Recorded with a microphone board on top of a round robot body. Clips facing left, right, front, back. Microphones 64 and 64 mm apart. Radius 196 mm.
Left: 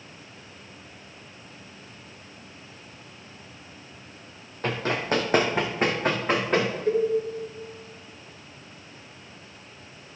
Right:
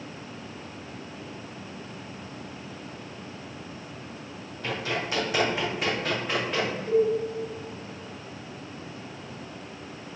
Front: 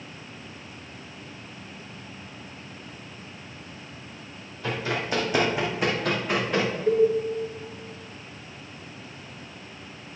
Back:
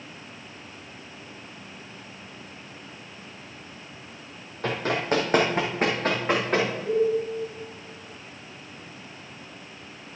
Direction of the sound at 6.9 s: 40° left.